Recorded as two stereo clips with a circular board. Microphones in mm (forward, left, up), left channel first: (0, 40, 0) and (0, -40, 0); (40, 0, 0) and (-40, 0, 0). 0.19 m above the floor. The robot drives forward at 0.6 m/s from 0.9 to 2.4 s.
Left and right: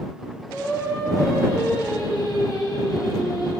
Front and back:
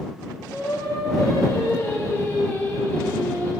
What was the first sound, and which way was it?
Singing, 40° left.